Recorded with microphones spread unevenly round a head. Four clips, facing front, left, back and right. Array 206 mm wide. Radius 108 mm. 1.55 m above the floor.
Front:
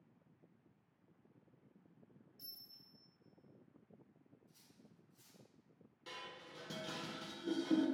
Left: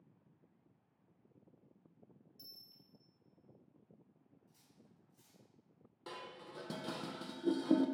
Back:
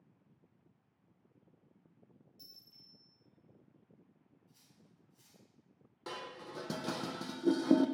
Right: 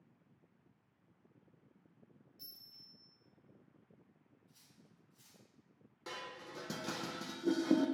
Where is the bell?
105° left, 3 m.